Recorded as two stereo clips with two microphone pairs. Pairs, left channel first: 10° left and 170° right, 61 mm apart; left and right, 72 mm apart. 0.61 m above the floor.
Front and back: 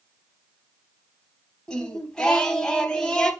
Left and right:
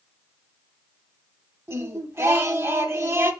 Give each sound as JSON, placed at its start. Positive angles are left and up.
{"t": 1.7, "sound": "singing", "azimuth_deg": -65, "distance_m": 0.5}